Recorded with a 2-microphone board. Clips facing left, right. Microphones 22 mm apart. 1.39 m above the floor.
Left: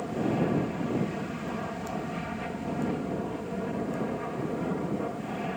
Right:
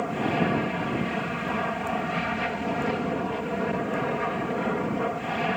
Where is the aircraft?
45° right (ahead or behind).